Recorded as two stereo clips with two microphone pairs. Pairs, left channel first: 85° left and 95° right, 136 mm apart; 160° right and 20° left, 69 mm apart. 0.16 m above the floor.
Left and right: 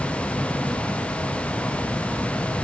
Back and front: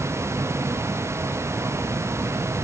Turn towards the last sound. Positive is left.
No sound to turn to.